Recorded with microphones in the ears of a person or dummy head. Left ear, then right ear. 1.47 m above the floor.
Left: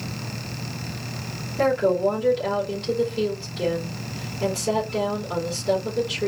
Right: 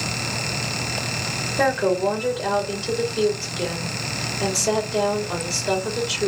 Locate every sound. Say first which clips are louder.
1.6 s a woman speaking: even; 45° right (ahead or behind), 3 m